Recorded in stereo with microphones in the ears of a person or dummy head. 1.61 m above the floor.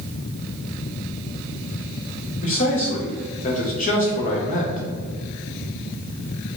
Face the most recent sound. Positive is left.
turn(degrees=40)  # may be behind; listen again after turning